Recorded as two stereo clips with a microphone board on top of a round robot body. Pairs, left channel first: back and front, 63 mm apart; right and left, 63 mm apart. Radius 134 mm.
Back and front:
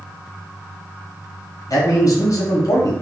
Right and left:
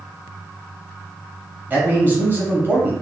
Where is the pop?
I don't hear a pop.